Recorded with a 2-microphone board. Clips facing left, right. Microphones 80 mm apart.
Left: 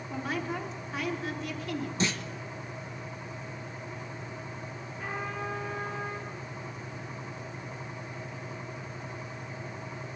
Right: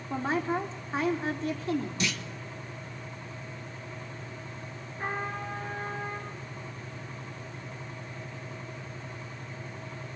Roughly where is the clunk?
Left.